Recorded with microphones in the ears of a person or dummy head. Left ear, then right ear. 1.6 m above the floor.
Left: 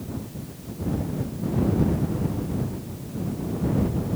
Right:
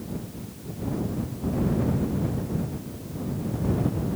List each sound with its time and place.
Only background noise.